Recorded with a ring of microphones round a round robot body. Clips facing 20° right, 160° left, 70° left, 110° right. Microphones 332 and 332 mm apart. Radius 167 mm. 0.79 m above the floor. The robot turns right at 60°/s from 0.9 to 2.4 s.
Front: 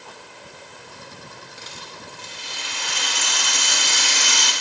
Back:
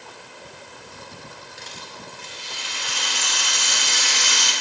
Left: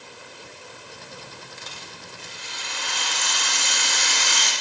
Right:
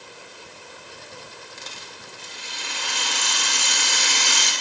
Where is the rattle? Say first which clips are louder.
Even, even; 110° right, 2 m; by 4.5 s 60° right, 2 m.